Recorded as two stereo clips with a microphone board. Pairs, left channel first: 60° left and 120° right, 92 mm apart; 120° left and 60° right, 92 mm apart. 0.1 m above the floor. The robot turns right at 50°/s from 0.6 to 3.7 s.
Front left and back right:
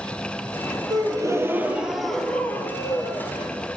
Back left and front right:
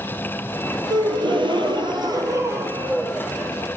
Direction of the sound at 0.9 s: 90° right.